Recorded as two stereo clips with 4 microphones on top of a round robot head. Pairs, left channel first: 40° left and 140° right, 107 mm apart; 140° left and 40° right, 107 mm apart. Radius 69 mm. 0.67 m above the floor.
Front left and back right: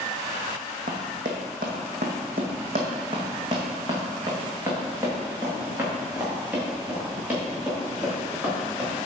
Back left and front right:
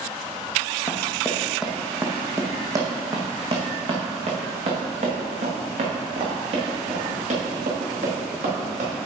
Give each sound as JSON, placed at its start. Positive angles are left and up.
{"t": 0.9, "sound": "running footsteps", "azimuth_deg": -145, "distance_m": 1.9}